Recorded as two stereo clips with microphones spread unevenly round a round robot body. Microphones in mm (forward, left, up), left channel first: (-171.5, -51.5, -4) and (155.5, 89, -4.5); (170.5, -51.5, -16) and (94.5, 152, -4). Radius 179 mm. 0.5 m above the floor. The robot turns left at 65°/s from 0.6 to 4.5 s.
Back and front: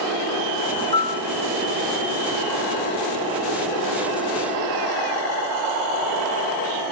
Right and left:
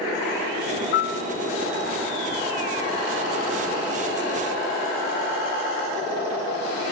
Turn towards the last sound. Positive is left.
turn(degrees=45)